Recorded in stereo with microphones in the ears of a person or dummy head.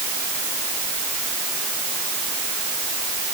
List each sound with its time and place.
Only background noise.